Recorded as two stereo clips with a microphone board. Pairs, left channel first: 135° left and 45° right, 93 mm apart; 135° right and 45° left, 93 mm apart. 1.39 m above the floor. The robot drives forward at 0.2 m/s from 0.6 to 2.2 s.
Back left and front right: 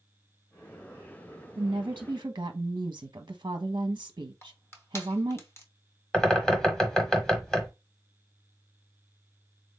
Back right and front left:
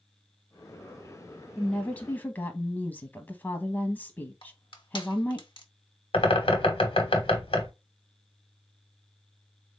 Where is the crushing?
165° right, 0.7 m.